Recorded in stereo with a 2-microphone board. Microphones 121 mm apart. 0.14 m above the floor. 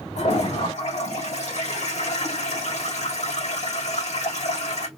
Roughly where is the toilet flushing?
Left.